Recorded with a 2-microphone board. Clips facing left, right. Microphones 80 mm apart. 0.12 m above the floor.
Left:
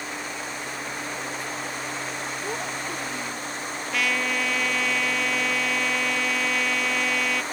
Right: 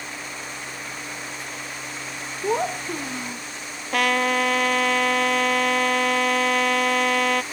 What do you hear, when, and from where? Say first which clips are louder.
2.4 s a child speaking: right 11 dB; 60° right (ahead or behind)
3.9 s a trumpet: right 6 dB; 55° right (ahead or behind)